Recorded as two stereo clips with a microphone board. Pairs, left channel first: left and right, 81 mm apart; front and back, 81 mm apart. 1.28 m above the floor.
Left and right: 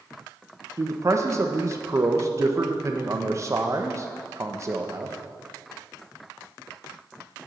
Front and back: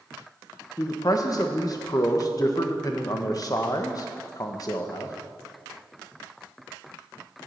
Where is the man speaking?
40° right, 1.1 m.